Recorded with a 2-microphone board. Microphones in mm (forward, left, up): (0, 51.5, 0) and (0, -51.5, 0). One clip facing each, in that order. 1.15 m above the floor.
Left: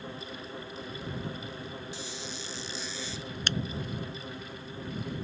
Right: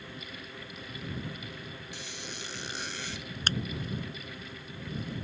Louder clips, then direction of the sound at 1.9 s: Left 3 dB; 60° right (ahead or behind).